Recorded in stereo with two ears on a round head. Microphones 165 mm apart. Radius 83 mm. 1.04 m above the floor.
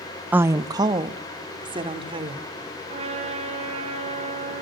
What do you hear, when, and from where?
0.3 s a woman speaking: 10° right (ahead or behind), 0.6 m; by 2.5 s 30° right (ahead or behind), 4 m
2.9 s a trumpet: 35° right (ahead or behind), 9 m